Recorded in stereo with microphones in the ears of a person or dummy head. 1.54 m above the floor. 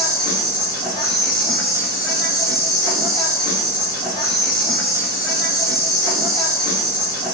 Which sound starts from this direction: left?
An insect, at 0.0 s.